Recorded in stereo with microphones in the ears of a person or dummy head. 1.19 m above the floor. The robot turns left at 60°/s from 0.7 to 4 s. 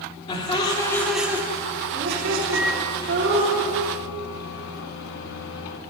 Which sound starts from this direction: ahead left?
Laughter, at 0.3 s.